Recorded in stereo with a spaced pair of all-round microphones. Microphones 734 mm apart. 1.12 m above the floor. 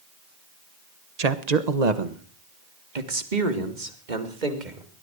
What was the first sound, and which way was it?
A man speaking, 55° right (ahead or behind).